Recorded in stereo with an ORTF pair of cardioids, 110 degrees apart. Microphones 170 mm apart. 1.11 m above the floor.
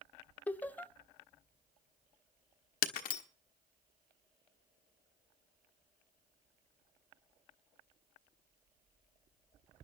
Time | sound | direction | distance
0.5 | laughter | 10° left | 0.7 m
2.8 | breaking glass | 60° left | 1.2 m